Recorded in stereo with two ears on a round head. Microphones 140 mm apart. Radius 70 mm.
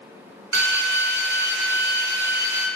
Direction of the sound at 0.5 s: 70° right (ahead or behind).